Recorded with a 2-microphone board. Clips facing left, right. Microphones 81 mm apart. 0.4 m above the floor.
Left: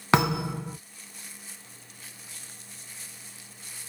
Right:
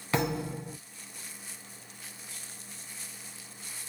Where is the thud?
80° left, 1.5 m.